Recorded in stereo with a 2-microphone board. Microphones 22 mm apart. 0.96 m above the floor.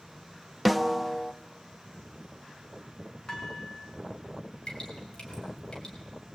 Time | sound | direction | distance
0.7 | a snare drum | centre (ahead or behind) | 0.9 m
3.3 | dishes clattering | 20° left (ahead or behind) | 7.5 m
4.7 | dripping | 40° left (ahead or behind) | 6 m